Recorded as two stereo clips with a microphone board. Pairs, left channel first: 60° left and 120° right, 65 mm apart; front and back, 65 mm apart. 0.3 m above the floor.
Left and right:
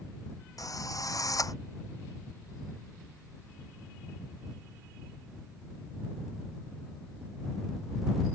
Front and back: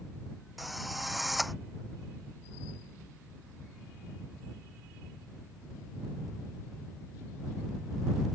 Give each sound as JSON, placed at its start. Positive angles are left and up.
{"t": 0.6, "sound": "a drill", "azimuth_deg": 90}